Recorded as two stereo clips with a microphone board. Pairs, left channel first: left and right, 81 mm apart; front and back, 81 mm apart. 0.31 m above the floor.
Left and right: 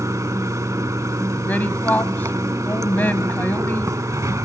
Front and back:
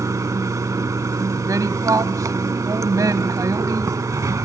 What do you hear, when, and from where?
0.0 s running water: 135° right, 0.8 m
1.4 s a woman speaking: 150° left, 1.8 m